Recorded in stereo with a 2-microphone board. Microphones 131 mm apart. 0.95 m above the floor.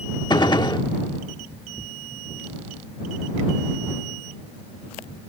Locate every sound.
0.3 s a gunshot: 35° left (ahead or behind)